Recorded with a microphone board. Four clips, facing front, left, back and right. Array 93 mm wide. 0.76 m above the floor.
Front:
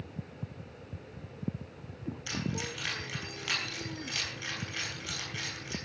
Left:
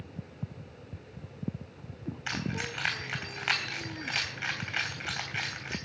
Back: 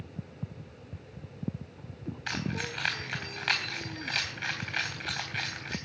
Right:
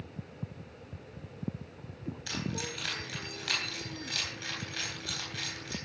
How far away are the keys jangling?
About 3.5 m.